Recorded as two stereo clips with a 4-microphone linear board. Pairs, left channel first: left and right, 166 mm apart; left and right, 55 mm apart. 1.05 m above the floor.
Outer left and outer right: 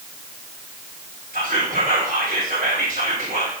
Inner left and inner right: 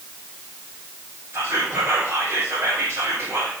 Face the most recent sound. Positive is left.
turn(degrees=-50)  # may be behind; listen again after turning